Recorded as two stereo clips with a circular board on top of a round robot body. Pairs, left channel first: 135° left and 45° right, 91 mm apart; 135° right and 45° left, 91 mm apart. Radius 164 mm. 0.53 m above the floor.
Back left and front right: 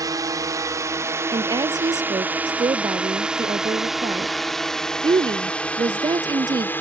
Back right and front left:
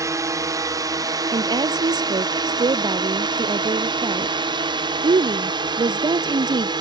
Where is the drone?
5° right; by 6.8 s 70° left.